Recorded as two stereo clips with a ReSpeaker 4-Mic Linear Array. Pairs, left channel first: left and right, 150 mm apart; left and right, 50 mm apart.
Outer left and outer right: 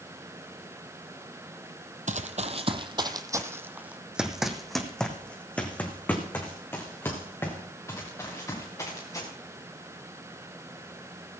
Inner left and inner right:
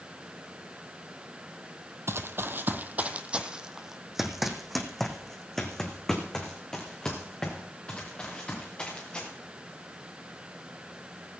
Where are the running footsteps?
60° right (ahead or behind), 0.9 m; by 9.3 s 20° left (ahead or behind), 3.5 m.